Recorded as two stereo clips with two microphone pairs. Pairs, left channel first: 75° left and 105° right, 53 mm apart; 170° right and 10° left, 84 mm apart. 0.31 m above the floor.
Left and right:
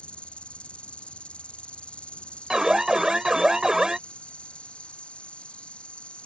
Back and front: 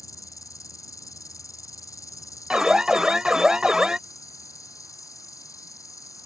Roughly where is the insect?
Behind left.